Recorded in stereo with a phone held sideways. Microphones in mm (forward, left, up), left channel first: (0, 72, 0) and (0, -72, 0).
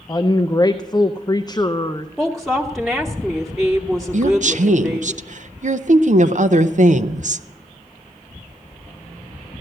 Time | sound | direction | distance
0.1 | a woman speaking | 25° left (ahead or behind) | 0.5 m
2.2 | a woman speaking | centre (ahead or behind) | 1.0 m
4.1 | a woman speaking | 60° right (ahead or behind) | 0.5 m